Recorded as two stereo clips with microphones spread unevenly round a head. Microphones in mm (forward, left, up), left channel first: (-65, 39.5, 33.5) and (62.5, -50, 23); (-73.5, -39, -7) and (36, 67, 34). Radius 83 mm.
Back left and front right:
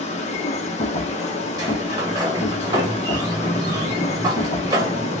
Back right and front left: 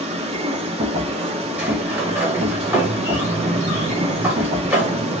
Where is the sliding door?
20° left, 1.0 m.